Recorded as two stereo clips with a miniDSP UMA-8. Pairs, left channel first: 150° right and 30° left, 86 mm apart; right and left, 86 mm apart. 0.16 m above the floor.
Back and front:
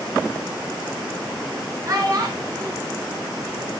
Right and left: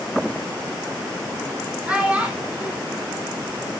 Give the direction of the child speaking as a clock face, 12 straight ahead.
11 o'clock.